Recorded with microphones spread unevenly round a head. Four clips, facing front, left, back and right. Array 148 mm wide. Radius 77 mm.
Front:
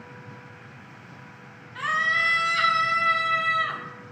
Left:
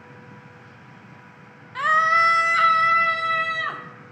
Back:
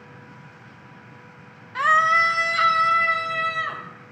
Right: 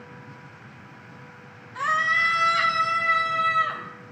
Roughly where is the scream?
Behind.